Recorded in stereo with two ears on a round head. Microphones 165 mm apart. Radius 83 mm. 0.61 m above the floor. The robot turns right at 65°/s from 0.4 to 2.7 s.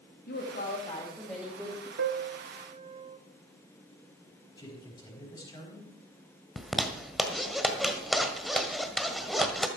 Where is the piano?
60° right (ahead or behind), 0.8 m; by 3.2 s 30° right (ahead or behind), 0.8 m.